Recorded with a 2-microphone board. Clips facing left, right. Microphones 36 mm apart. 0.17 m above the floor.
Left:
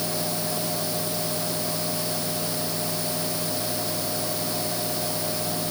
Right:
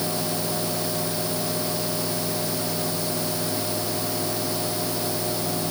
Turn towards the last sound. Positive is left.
No sound to turn to.